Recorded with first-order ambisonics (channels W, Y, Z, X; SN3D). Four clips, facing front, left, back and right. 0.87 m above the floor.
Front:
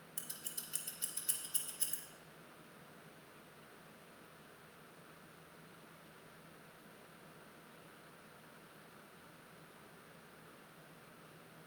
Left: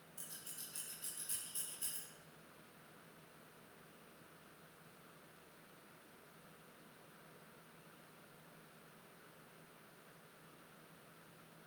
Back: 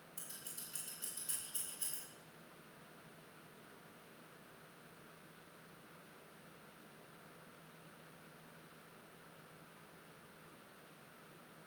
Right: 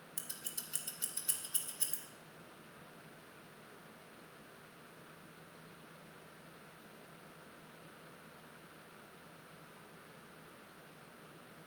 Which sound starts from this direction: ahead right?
Scissors, at 0.2 s.